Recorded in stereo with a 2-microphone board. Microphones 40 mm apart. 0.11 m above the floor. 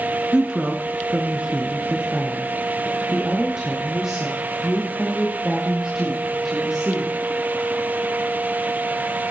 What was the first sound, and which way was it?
A woman speaking, 20° right (ahead or behind).